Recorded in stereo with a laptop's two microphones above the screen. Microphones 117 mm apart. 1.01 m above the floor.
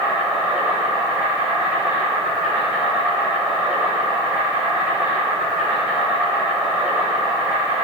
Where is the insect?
10° right (ahead or behind), 4.5 m.